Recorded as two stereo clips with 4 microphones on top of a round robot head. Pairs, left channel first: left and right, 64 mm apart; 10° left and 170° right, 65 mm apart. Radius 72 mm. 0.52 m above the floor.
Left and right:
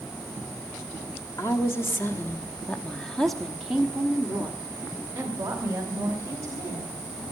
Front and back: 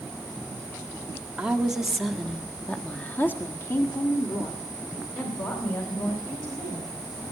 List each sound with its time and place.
1.4 s a woman speaking: 115° left, 1.8 m; by 6.9 s 35° right, 4 m